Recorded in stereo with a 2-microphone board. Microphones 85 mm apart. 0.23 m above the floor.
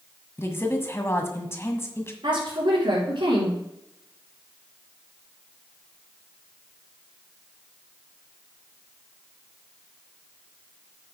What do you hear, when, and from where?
0.4 s a woman speaking: 30° left (ahead or behind), 1.4 m
2.2 s a woman speaking: 65° right (ahead or behind), 5 m